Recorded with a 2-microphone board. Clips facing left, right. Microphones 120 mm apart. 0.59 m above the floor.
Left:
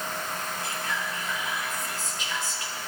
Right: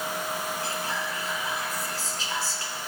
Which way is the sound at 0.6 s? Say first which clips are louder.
Right 1 dB; 35° right (ahead or behind).